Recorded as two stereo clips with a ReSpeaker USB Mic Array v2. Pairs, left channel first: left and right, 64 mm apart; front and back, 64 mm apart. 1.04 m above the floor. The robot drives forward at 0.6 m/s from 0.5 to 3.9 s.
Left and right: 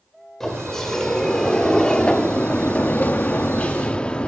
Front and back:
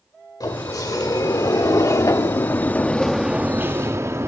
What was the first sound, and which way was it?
A sliding door, 5° left.